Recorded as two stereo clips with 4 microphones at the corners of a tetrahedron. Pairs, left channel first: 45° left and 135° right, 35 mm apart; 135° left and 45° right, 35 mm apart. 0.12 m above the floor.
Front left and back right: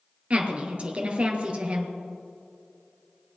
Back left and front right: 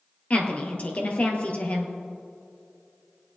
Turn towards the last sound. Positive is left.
turn(degrees=175)